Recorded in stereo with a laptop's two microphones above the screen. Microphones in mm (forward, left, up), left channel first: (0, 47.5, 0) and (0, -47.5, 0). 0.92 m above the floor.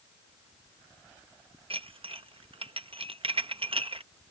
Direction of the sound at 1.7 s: 65° right (ahead or behind).